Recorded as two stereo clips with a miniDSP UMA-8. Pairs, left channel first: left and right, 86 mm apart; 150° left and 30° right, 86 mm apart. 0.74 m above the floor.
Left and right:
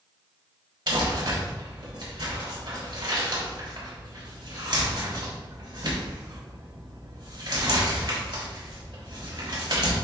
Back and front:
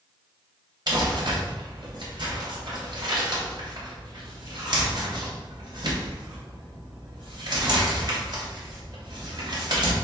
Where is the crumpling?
60° right, 3 m.